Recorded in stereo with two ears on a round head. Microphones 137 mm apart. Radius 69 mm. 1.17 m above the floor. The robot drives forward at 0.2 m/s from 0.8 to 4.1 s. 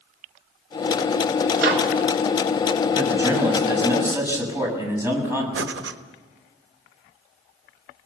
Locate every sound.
1.6 s a microwave: 70° right (ahead or behind), 3 m
3.0 s a man speaking: 15° right (ahead or behind), 7 m
5.5 s breathing: 85° right, 1.3 m